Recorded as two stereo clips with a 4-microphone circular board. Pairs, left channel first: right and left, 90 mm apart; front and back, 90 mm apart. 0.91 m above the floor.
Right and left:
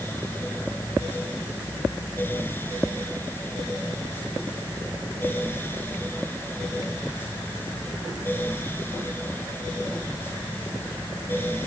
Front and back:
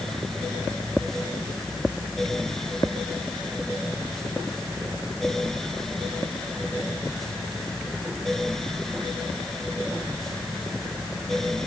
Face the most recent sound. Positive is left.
No sound to turn to.